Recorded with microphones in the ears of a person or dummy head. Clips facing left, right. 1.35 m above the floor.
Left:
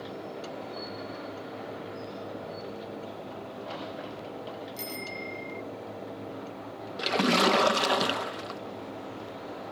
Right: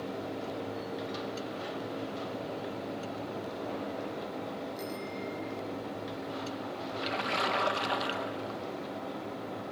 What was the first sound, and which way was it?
A bicycle bell, 30° left (ahead or behind).